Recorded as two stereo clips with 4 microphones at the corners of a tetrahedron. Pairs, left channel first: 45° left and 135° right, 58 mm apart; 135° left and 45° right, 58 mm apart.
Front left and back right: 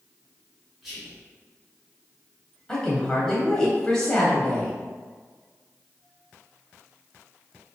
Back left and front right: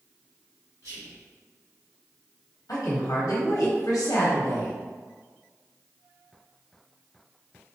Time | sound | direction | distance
0.8 | whispering | 50° right | 1.1 m
2.7 | a woman speaking | 120° left | 0.7 m